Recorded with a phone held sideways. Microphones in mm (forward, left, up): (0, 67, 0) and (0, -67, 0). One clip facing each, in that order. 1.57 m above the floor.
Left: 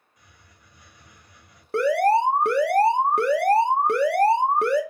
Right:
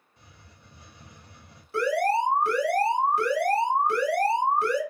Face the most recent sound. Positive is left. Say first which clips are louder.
# left 5 dB
turn(degrees=60)  # may be behind; listen again after turning